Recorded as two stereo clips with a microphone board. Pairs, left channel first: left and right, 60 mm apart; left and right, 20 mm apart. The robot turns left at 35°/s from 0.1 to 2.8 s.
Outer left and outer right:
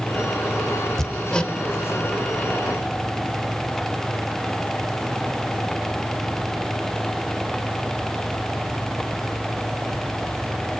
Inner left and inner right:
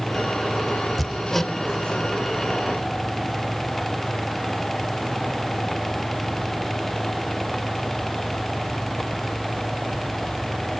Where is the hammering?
5° left (ahead or behind), 0.8 m; by 1.5 s 15° left (ahead or behind), 0.8 m.